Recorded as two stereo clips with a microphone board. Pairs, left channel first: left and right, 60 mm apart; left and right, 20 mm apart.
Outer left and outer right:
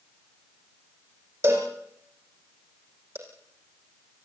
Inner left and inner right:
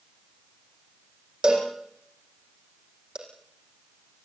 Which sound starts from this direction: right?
A cowbell, at 1.4 s.